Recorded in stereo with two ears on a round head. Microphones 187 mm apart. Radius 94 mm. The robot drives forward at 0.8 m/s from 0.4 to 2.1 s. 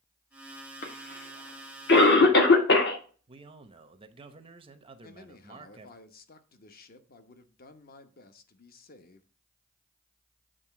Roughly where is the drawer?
No drawer in this recording.